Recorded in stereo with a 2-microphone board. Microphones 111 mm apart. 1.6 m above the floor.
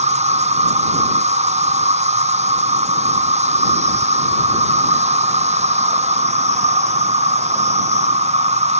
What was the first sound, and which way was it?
An insect, 80° right.